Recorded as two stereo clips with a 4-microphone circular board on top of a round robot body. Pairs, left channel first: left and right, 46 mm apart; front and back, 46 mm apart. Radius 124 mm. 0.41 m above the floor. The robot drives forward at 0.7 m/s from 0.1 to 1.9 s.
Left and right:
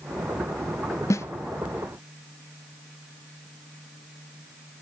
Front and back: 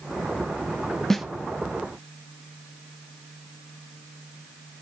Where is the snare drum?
80° left, 0.5 m; by 1.3 s 95° left, 0.5 m.